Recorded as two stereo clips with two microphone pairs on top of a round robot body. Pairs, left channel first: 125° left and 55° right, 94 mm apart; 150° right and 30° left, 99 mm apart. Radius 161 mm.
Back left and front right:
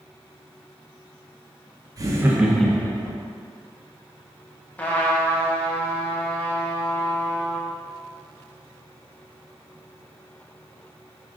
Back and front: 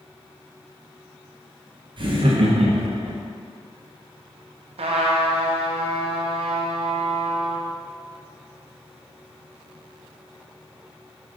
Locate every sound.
2.0 s laughter: 5° right, 1.1 m; by 3.2 s 70° left, 1.3 m
4.8 s a trumpet: 50° left, 0.6 m